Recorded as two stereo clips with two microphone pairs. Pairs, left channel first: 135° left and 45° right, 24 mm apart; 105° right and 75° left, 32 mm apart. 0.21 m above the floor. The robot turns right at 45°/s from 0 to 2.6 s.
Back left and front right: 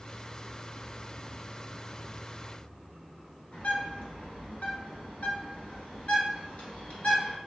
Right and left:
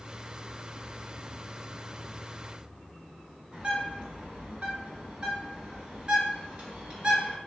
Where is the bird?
130° left, 1.2 m.